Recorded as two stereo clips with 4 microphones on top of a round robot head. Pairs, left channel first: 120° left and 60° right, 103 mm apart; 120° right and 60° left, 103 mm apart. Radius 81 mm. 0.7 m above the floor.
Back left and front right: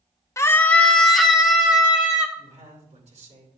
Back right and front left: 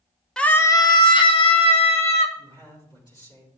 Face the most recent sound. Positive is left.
turn(degrees=-65)